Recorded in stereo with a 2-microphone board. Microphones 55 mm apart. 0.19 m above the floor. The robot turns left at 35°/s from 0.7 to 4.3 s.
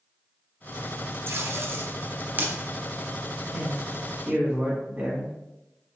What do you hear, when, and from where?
1.3 s tape being pulled: 50° right (ahead or behind), 1.0 m; by 2.5 s 30° right (ahead or behind), 1.0 m
3.5 s a man speaking: 30° right (ahead or behind), 1.6 m; by 5.3 s 25° right (ahead or behind), 1.6 m